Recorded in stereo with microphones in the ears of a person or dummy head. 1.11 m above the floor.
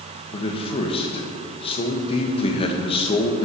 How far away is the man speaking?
About 0.9 m.